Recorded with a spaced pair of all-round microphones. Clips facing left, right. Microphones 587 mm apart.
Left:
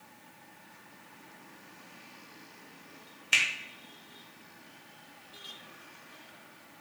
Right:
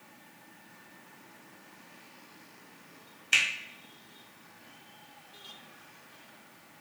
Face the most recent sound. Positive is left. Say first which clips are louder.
# even
turn(degrees=10)  # may be behind; listen again after turning